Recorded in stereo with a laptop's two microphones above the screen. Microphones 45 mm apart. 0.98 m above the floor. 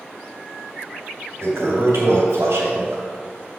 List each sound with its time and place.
1.4 s a toilet flushing: 75° right (ahead or behind), 3 m